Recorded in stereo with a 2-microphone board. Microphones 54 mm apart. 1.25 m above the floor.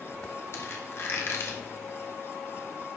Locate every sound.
0.5 s a squeak: 50° left (ahead or behind), 1.2 m